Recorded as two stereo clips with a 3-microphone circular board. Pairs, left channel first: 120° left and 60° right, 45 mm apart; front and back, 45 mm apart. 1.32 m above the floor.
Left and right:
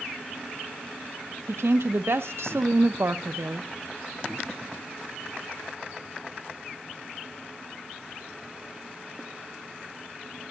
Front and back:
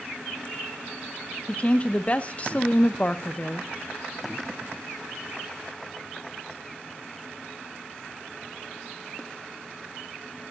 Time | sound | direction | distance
1.5 | a woman speaking | 55° right | 0.7 m